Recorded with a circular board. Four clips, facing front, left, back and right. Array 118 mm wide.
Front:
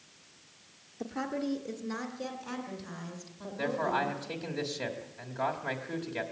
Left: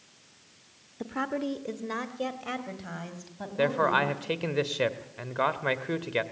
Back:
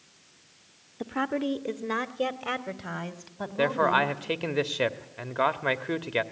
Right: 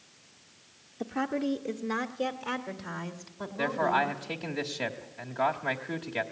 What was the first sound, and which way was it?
A woman speaking, 170° left.